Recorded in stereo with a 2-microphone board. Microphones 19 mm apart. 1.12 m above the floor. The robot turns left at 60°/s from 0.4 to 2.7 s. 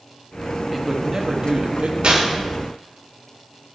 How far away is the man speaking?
About 1.3 m.